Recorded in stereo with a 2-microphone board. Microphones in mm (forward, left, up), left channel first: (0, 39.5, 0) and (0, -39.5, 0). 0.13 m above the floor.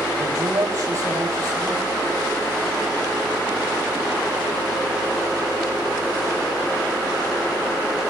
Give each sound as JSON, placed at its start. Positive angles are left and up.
{"t": 0.2, "sound": "a man speaking", "side_deg": -45, "distance_m": 4.0}